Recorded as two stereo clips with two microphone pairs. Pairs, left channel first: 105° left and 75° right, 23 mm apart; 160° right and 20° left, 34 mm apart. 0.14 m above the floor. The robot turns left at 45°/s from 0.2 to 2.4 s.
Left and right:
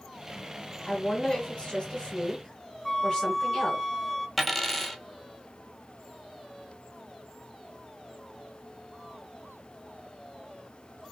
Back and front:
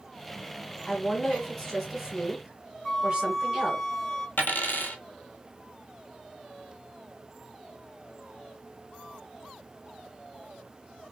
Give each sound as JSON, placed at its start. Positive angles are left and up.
{"t": 0.9, "sound": "a woman speaking", "azimuth_deg": 140, "distance_m": 1.8}
{"t": 2.9, "sound": "a flute", "azimuth_deg": 130, "distance_m": 0.9}
{"t": 4.4, "sound": "a dropped coin", "azimuth_deg": -165, "distance_m": 0.9}